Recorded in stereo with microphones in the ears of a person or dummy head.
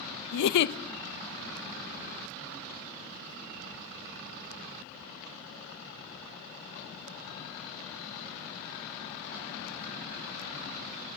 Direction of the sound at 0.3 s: 70° left (ahead or behind).